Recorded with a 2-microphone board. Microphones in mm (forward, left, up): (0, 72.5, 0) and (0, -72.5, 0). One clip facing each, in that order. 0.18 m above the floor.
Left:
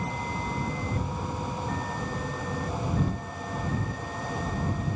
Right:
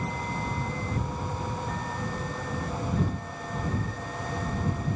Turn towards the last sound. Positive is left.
No sound to turn to.